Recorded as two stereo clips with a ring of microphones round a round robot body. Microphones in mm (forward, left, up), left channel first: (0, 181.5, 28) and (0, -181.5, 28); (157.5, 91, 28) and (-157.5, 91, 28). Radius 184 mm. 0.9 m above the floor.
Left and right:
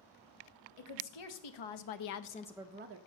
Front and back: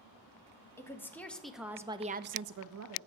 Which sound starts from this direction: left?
A woman speaking, at 0.8 s.